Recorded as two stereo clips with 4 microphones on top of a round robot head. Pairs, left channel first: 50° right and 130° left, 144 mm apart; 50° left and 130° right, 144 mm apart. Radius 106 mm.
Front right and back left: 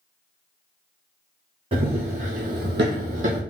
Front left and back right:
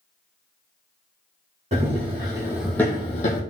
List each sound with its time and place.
1.7 s running footsteps: 175° right, 1.3 m; by 3.4 s 80° left, 0.8 m